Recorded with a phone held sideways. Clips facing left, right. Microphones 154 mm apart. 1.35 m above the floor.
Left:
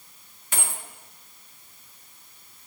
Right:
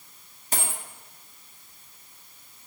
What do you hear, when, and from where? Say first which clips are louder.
0.5 s a dropped coin: right 2 dB; 35° right (ahead or behind), 1.6 m